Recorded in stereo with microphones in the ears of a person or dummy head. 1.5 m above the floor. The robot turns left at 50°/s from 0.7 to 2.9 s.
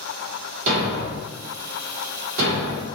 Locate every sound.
0.7 s a thud: 40° right (ahead or behind), 1.6 m; by 2.9 s 20° right (ahead or behind), 1.6 m